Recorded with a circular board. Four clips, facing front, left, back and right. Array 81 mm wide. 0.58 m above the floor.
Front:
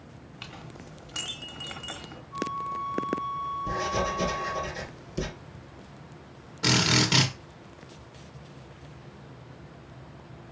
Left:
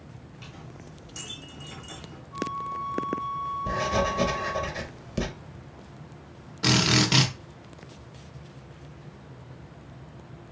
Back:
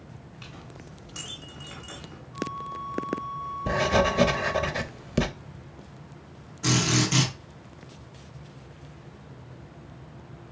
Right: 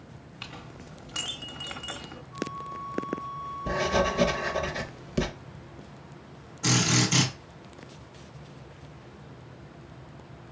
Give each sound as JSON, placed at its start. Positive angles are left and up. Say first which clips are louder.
{"t": 0.4, "sound": "a clink", "louder": "right 2 dB, front 2 dB", "azimuth_deg": -60, "distance_m": 0.8}
{"t": 2.3, "sound": "a flute", "louder": "left 4 dB, front 2 dB", "azimuth_deg": 50, "distance_m": 0.9}
{"t": 3.7, "sound": "writing", "louder": "right 2 dB, back 8 dB", "azimuth_deg": -175, "distance_m": 0.6}
{"t": 6.6, "sound": "a drill", "louder": "left 2 dB, even", "azimuth_deg": 55, "distance_m": 1.1}